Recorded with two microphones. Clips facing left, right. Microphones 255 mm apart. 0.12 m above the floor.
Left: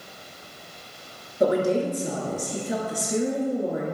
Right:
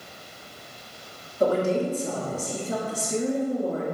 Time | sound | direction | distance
1.4 | a woman speaking | 15° left (ahead or behind) | 1.9 m